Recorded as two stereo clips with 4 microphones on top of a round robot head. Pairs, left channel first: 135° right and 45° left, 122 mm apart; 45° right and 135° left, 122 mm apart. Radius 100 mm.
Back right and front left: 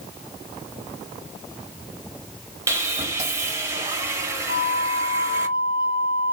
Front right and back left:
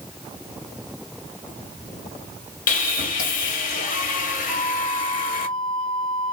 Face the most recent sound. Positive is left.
turn(degrees=-125)